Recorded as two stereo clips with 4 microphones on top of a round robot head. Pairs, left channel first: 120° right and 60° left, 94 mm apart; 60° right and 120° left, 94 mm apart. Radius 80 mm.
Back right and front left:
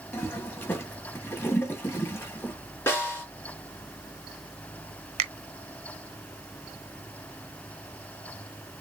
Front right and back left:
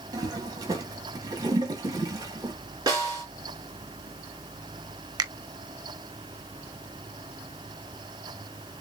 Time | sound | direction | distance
0.1 | a toilet flushing | 170° left | 2 m
2.9 | a snare drum | 175° left | 3.5 m
5.2 | a finger snap | 70° left | 0.6 m